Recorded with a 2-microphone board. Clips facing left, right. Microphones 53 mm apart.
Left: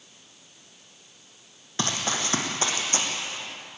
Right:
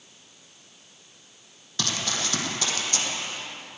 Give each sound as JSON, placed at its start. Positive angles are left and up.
{"t": 1.8, "sound": "running footsteps", "side_deg": 30, "distance_m": 3.5}